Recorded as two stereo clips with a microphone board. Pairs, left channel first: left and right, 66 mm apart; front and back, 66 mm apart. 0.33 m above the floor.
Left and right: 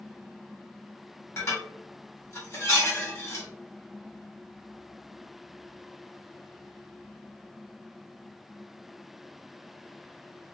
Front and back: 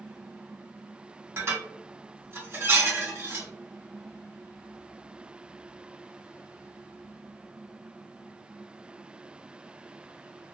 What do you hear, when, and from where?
1.4 s dishes clattering: 135° left, 1.7 m